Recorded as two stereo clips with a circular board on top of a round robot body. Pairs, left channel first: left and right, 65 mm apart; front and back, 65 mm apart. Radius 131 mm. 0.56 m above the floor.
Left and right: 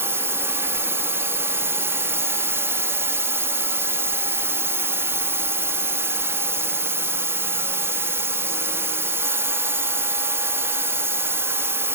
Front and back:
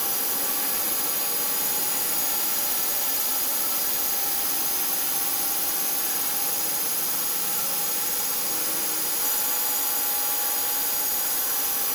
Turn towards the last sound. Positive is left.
turn(degrees=-95)